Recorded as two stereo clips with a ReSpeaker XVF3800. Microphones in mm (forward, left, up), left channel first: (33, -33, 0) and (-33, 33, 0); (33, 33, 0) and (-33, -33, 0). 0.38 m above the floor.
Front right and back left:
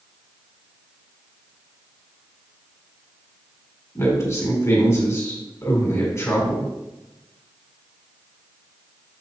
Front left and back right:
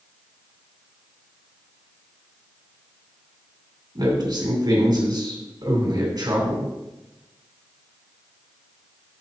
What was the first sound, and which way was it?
A man speaking, 95° right.